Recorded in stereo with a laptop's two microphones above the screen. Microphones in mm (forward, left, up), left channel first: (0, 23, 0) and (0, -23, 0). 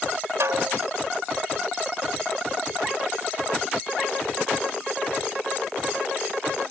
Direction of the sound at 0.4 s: 85° right.